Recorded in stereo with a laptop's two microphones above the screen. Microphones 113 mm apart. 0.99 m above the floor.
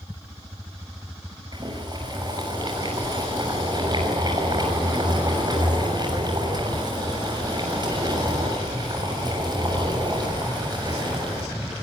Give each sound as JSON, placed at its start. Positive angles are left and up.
{"t": 1.5, "sound": "boiling", "side_deg": -40, "distance_m": 6.5}